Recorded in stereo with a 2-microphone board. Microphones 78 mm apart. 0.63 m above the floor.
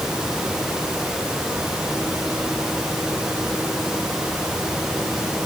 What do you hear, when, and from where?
Only background noise.